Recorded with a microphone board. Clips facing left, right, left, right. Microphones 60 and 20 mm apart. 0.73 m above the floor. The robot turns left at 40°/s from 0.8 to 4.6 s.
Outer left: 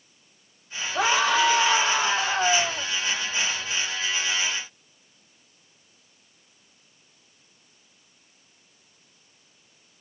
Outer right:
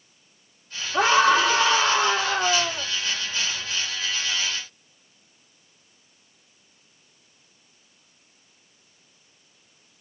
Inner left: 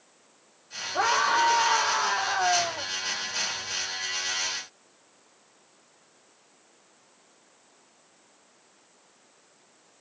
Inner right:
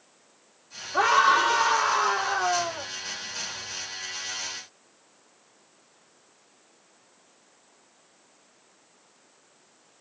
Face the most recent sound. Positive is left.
turn(degrees=120)